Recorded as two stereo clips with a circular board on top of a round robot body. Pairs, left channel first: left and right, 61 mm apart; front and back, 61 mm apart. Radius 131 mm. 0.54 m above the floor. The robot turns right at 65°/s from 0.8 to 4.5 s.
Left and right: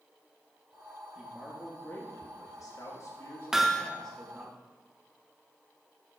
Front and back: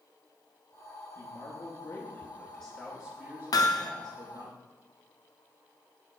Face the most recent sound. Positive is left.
turn(degrees=55)